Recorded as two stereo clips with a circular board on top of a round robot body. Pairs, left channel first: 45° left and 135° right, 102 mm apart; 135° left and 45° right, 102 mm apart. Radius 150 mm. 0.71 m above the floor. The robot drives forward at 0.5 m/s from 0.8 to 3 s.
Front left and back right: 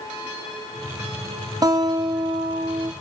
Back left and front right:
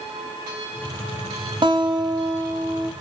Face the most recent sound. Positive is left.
turn(degrees=-105)